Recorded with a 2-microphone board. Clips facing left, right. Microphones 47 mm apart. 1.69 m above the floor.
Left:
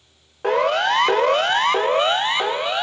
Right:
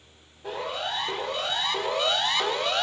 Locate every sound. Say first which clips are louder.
0.4 s a siren: left 13 dB; 80° left, 2 m; by 2.8 s 15° left (ahead or behind), 2.5 m